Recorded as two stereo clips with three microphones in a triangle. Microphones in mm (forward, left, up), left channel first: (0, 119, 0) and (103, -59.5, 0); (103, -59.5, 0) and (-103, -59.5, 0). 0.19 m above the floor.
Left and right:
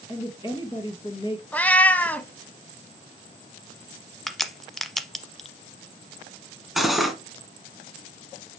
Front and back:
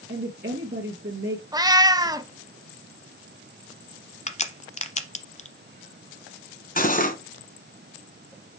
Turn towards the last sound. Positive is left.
turn(degrees=30)